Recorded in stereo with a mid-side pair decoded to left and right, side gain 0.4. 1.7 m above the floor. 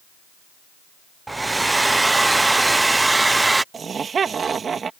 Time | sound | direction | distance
1.3 | a hair dryer | 20° right | ?
3.7 | laughter | 50° right | ?